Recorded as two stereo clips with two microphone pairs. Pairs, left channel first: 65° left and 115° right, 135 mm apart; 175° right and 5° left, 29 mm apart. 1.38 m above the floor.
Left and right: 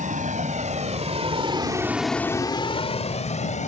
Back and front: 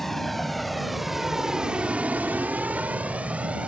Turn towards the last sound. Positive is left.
turn(degrees=45)